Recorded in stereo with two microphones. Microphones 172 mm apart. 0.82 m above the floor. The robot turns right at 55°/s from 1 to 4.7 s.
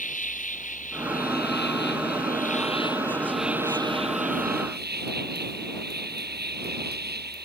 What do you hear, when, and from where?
0.0 s an insect: 50° left; by 7.5 s 105° right